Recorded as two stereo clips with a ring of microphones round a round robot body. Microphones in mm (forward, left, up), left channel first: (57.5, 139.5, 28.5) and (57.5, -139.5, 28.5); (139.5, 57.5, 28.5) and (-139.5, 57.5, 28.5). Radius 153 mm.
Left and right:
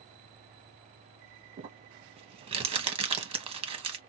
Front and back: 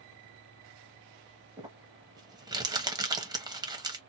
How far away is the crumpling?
About 1.1 m.